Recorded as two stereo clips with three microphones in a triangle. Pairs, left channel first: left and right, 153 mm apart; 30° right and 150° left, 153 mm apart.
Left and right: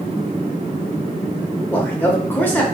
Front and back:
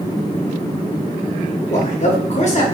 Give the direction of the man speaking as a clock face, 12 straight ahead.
12 o'clock.